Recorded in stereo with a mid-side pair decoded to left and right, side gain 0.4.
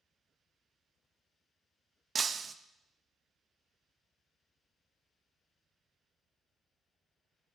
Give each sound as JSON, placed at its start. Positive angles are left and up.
{"t": 2.1, "sound": "breaking glass", "azimuth_deg": -45, "distance_m": 0.6}